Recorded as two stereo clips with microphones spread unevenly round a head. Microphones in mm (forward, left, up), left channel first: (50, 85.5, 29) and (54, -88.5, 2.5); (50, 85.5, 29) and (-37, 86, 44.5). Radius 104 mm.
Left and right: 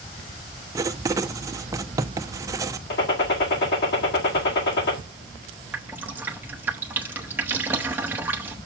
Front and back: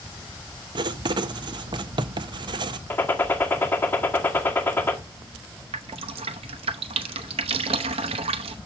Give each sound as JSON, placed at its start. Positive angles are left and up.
{"t": 0.8, "sound": "writing", "azimuth_deg": -150, "distance_m": 0.6}
{"t": 2.9, "sound": "a gunshot", "azimuth_deg": 65, "distance_m": 2.0}
{"t": 5.7, "sound": "dripping", "azimuth_deg": -170, "distance_m": 0.7}